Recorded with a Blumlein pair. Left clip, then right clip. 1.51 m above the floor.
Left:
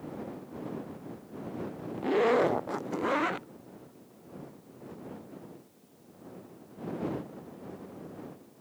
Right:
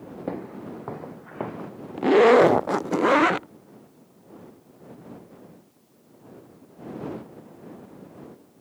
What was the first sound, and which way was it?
Footsteps, 40° right.